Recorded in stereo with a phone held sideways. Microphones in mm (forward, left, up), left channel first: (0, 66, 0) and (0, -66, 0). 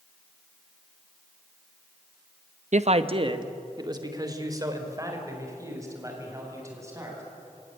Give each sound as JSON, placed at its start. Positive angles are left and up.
{"t": 2.7, "sound": "a man speaking", "side_deg": -65, "distance_m": 0.7}